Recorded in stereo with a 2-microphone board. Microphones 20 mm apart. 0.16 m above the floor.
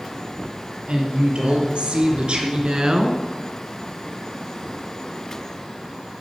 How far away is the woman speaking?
About 4.5 m.